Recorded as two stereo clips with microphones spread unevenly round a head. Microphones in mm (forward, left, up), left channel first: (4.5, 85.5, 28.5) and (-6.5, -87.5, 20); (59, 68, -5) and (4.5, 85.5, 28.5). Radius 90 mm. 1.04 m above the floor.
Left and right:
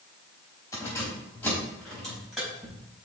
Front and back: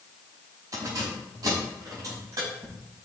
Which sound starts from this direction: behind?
Keys jangling, at 0.7 s.